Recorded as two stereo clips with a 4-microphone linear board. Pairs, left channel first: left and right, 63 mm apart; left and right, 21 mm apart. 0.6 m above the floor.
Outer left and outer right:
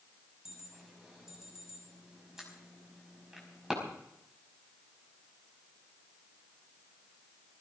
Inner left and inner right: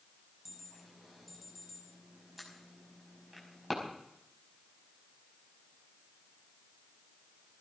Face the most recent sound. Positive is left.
turn(degrees=-10)  # may be behind; listen again after turning